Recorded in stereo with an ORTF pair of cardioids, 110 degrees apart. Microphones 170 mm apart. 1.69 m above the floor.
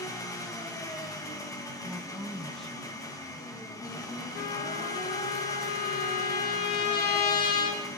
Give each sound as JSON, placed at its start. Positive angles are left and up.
{"t": 0.0, "sound": "an engine running", "azimuth_deg": 20, "distance_m": 2.0}
{"t": 1.8, "sound": "a woman speaking", "azimuth_deg": 5, "distance_m": 1.6}
{"t": 4.3, "sound": "a trumpet", "azimuth_deg": 65, "distance_m": 3.5}